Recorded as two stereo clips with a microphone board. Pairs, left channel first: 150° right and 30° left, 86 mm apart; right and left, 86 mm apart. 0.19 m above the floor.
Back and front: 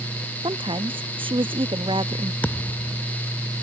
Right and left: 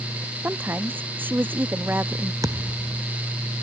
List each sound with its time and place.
0.4 s a woman speaking: 25° left
2.4 s a thud: 140° left